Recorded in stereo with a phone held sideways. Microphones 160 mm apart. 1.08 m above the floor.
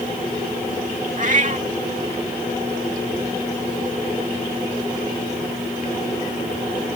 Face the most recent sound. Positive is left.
turn(degrees=-50)  # may be behind; listen again after turning